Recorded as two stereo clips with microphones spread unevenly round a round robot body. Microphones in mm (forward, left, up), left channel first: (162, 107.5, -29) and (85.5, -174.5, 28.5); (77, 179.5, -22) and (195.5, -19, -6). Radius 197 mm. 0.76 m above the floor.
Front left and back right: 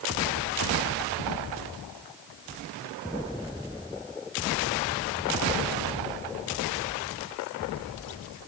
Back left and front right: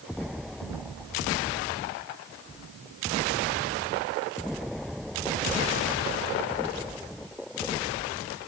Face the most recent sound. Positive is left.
No sound to turn to.